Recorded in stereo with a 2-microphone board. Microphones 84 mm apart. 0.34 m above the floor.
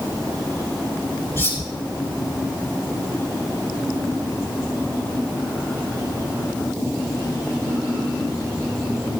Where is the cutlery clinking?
30° left (ahead or behind), 5 m.